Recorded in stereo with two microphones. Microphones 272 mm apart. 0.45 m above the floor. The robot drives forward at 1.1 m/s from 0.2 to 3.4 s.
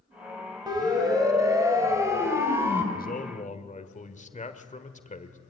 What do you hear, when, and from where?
0.7 s a siren: 15° right (ahead or behind), 4 m; by 2.8 s 10° right (ahead or behind), 2.5 m
2.9 s a man speaking: 35° left (ahead or behind), 1.2 m; by 5.4 s 30° left (ahead or behind), 1.5 m